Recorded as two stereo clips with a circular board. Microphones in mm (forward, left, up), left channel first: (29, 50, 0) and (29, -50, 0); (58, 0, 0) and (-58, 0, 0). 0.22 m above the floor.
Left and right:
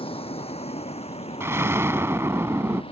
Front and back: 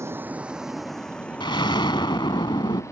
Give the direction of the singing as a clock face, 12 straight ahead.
I don't hear singing.